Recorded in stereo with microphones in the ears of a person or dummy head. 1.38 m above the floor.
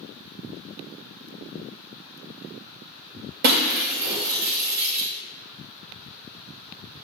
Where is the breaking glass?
55° right (ahead or behind), 2.5 m.